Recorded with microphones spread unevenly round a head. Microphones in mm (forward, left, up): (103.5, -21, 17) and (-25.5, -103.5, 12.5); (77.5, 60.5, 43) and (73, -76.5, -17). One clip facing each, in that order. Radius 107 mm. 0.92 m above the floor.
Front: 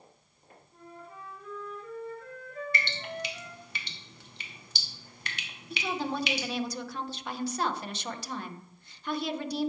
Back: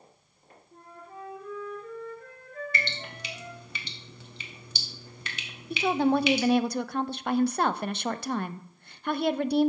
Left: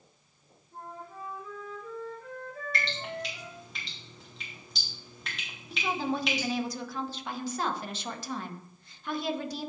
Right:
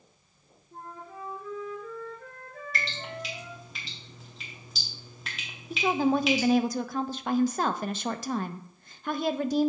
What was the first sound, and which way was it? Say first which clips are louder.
A flute: back 2 dB, right 1 dB; 105° right.